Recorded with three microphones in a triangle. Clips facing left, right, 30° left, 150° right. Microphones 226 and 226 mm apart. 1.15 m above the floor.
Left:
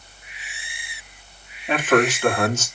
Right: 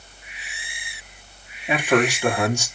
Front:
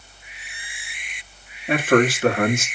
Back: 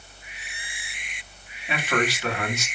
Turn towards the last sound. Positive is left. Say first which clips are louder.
# left 1 dB, front 9 dB
turn(degrees=-10)